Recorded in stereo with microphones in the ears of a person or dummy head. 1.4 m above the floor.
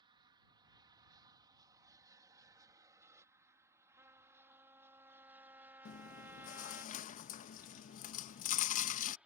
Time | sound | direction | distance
0.0 | an aircraft | 25° right (ahead or behind) | ?
4.0 | a trumpet | 15° right (ahead or behind) | ?
5.8 | chewing | 40° left (ahead or behind) | ?